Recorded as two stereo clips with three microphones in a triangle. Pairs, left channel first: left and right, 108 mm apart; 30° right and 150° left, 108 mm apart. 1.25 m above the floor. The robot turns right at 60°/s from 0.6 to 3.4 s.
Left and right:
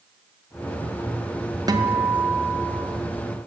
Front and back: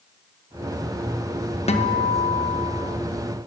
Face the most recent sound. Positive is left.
turn(degrees=65)